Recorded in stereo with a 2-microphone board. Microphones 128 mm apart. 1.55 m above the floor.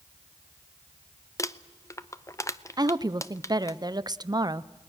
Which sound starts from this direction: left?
Crumpling, at 1.4 s.